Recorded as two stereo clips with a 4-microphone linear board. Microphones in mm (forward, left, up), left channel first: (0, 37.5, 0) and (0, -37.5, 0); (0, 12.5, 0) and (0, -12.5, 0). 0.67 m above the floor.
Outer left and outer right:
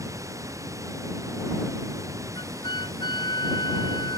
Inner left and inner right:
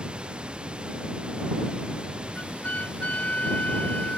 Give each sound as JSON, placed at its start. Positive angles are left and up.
{"t": 0.0, "sound": "running water", "side_deg": -45}
{"t": 2.4, "sound": "a flute", "side_deg": 85}